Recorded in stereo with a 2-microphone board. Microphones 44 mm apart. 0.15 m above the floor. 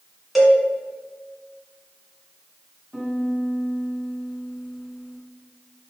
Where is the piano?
5° right (ahead or behind), 1.1 m.